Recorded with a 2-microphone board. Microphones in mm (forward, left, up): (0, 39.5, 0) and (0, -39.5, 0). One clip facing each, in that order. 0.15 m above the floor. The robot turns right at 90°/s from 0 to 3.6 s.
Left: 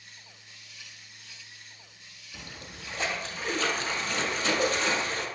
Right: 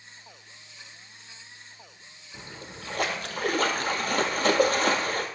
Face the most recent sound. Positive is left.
turn(degrees=-55)